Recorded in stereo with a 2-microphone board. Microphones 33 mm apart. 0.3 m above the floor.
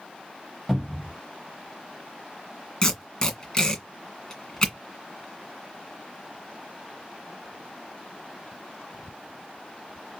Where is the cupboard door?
5° right (ahead or behind), 1.6 m.